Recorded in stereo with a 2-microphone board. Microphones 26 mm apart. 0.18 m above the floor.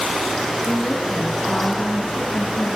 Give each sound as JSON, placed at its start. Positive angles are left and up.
{"t": 0.7, "sound": "a woman speaking", "side_deg": 50, "distance_m": 3.5}